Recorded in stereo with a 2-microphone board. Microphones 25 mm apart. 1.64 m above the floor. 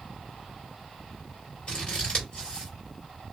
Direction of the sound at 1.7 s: 30° left (ahead or behind).